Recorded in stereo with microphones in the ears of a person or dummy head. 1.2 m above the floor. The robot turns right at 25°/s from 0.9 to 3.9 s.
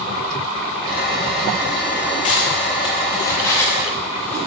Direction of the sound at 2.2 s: 35° left (ahead or behind).